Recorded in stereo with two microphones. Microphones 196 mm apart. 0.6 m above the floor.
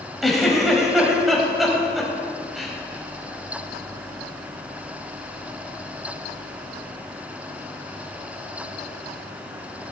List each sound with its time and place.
0.2 s a giggle: centre (ahead or behind), 2.0 m